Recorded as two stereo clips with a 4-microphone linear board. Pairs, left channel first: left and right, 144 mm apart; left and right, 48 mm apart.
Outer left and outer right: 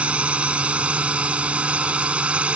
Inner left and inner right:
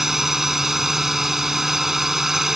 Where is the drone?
10° right (ahead or behind).